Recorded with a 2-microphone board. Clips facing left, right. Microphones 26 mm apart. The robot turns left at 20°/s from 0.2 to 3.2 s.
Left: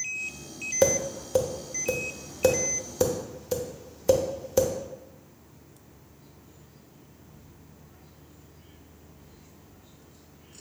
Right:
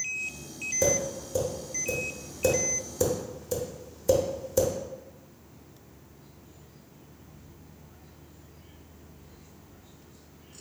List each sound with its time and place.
0.8 s tapping: 55° left (ahead or behind), 0.7 m; by 4.7 s 25° left (ahead or behind), 0.7 m